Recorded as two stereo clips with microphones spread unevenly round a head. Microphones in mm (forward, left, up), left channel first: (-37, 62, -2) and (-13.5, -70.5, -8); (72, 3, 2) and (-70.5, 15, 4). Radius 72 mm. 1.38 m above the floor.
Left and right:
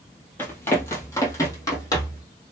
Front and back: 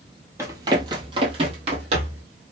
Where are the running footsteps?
145° left, 1.5 m; by 2.2 s 155° left, 2.5 m.